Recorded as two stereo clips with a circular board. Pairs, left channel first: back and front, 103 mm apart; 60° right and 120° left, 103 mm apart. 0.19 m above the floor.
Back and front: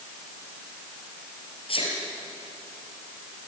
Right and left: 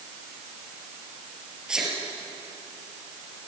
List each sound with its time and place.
1.7 s a sneeze: 160° right, 5 m